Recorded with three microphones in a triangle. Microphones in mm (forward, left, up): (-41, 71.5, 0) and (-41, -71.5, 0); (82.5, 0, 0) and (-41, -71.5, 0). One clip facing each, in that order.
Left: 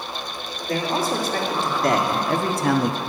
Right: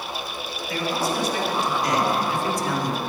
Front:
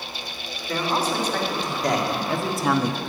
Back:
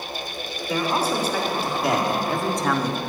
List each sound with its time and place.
0.7 s a man speaking: 130° left, 3 m; by 3.0 s 105° left, 1.0 m